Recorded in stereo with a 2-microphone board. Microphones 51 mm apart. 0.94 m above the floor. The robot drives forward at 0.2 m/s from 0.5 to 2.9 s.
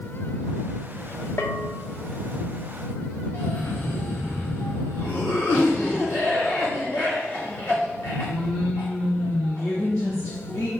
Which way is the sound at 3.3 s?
70° left (ahead or behind).